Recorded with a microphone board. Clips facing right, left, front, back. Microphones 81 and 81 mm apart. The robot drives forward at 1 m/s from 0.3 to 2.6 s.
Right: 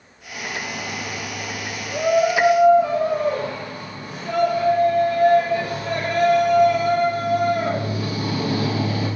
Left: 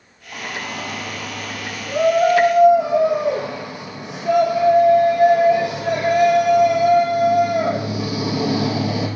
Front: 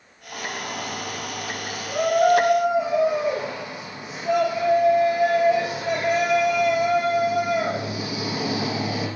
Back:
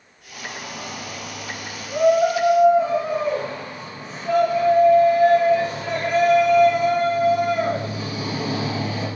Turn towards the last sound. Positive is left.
turn(degrees=85)